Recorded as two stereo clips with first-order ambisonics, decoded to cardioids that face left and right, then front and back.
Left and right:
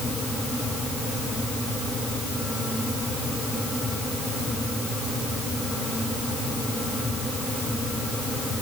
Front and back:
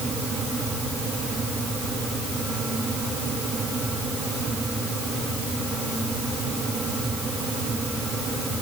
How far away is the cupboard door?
No cupboard door in this recording.